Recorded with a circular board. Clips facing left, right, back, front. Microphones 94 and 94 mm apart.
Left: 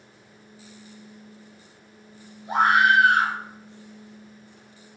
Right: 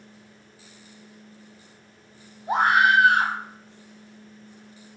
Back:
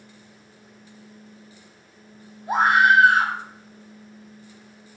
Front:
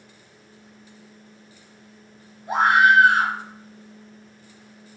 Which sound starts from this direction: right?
A scream, at 2.5 s.